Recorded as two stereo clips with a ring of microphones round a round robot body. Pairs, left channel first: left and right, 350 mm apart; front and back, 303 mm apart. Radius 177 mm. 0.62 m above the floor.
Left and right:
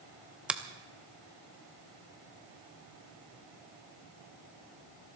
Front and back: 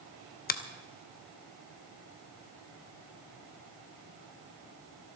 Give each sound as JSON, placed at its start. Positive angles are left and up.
{"t": 0.5, "sound": "a finger snap", "azimuth_deg": -5, "distance_m": 0.7}